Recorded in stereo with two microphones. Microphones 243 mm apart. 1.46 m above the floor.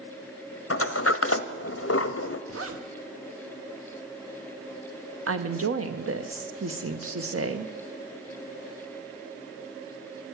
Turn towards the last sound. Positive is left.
turn(degrees=-75)  # may be behind; listen again after turning